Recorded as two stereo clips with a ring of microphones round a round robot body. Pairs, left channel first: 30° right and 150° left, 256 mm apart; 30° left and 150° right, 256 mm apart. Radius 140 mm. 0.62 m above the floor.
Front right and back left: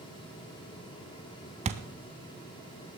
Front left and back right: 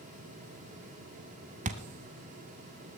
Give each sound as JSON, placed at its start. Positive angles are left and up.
{"t": 1.6, "sound": "a thud", "azimuth_deg": -175, "distance_m": 0.5}